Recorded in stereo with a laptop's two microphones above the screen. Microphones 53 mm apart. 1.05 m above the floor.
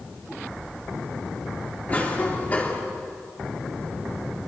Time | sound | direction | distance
1.9 | a cough | 30° left (ahead or behind) | 3.5 m